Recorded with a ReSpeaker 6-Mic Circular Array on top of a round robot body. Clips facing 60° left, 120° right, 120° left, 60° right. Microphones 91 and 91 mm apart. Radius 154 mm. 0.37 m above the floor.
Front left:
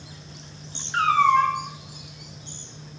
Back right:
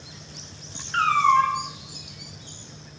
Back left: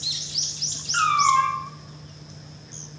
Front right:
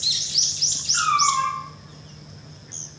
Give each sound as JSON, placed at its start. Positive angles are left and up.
{"t": 0.9, "sound": "a cat meowing", "azimuth_deg": 145, "distance_m": 0.8}